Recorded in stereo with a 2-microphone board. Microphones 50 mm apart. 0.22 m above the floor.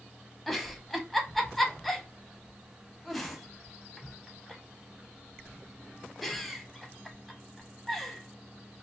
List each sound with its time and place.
0.5 s a giggle: centre (ahead or behind), 0.7 m